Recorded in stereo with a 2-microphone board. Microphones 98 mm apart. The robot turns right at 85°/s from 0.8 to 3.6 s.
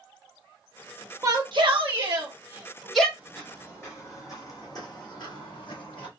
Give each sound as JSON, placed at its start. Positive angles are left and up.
{"t": 1.2, "sound": "a shout", "azimuth_deg": -145, "distance_m": 1.4}
{"t": 3.2, "sound": "footsteps", "side_deg": -15, "distance_m": 1.9}